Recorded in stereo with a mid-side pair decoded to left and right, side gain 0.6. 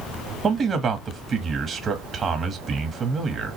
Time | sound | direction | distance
0.4 | a man speaking | 30° right | 1.4 m